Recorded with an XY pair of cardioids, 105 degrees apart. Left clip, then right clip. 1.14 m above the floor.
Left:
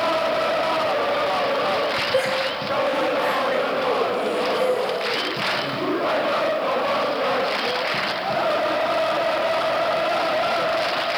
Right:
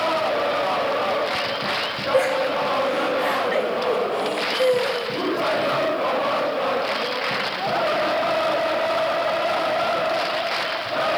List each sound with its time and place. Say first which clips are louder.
2.1 s laughter: right 2 dB; straight ahead, 3 m; by 5.8 s 25° right, 4 m